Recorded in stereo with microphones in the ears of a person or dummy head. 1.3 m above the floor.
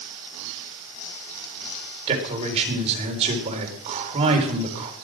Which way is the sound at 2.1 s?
35° right (ahead or behind).